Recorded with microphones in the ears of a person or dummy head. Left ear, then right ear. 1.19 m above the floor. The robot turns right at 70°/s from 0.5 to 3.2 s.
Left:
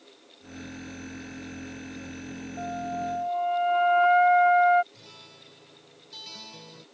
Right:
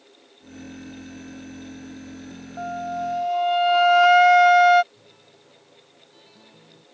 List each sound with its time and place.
2.6 s a flute: 120° right; by 4.8 s 75° right
4.9 s a guitar: 85° left